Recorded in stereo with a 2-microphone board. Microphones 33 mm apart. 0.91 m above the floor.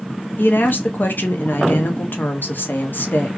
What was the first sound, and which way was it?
A woman speaking, 70° left (ahead or behind).